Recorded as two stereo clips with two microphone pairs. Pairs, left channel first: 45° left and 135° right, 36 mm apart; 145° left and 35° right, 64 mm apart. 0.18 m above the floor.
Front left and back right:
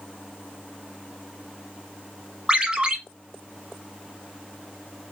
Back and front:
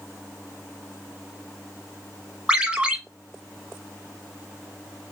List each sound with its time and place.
2.5 s a ringtone: 90° right, 1.1 m